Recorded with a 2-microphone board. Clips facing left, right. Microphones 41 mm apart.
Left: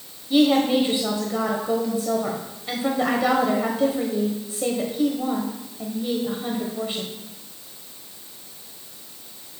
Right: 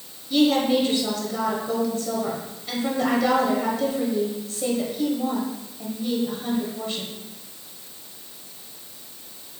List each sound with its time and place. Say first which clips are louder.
0.3 s a woman speaking: left 1 dB; 20° left (ahead or behind), 1.2 m